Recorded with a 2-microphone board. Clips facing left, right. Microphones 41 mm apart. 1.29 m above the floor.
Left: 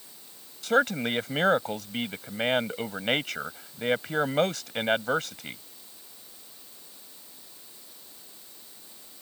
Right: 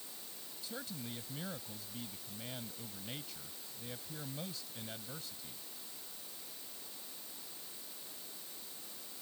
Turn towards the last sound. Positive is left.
turn(degrees=75)  # may be behind; listen again after turning